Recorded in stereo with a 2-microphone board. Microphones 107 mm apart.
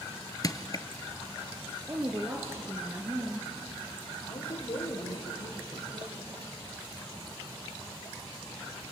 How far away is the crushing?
About 0.6 m.